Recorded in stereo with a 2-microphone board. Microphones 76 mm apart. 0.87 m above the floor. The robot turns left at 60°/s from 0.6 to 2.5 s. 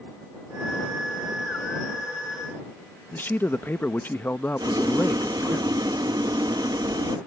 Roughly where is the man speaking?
Left.